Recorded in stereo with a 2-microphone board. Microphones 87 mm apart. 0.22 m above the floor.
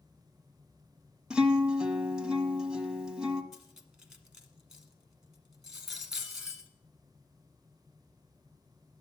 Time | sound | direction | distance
1.3 | a guitar | 10° right (ahead or behind) | 1.1 m
3.5 | cutlery clinking | 5° right (ahead or behind) | 1.4 m